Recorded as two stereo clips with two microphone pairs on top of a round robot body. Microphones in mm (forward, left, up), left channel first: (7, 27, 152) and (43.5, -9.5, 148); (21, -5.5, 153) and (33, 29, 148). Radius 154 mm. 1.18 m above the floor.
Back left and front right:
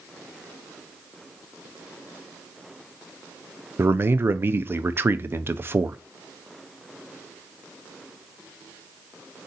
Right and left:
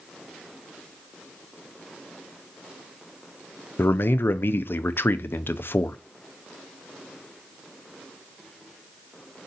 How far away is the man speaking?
About 0.6 m.